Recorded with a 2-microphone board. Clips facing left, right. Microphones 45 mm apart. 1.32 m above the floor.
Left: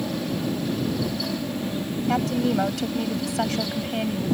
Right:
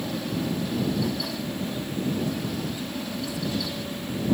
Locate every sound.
0.0 s an aircraft: 10° left (ahead or behind)
2.1 s a woman speaking: 90° left